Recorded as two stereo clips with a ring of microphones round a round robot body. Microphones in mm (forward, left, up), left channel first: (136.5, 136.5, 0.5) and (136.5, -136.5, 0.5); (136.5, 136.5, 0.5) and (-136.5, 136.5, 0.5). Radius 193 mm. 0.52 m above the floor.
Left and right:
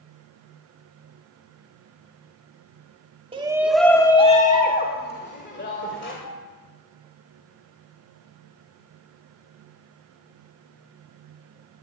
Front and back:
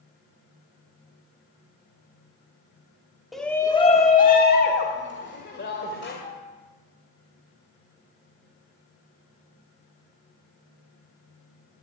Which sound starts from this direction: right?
A shout, at 3.3 s.